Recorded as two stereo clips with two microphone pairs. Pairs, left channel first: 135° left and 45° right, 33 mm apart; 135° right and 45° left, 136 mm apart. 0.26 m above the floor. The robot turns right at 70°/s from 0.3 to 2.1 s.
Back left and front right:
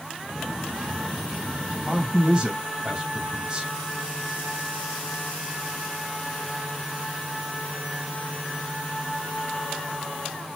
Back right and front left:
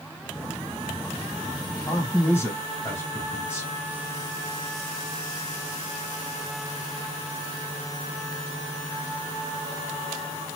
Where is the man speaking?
95° right, 1.1 m; by 3.7 s 80° right, 1.1 m.